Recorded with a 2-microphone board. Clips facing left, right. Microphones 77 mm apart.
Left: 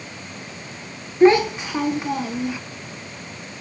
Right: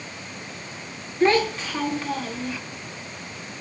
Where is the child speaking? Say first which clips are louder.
Left 6 dB; 15° left (ahead or behind), 0.6 m.